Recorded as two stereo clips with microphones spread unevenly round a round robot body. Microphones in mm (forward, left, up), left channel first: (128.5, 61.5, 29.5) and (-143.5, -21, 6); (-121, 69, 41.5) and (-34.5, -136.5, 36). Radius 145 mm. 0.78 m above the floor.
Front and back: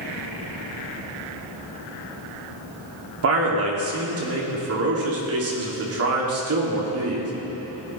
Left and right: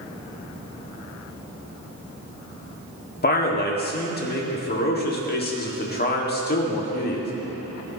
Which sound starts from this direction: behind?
A man speaking, at 3.2 s.